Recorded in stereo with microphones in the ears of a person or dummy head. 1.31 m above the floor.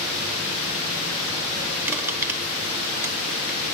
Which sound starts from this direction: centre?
Crushing, at 1.9 s.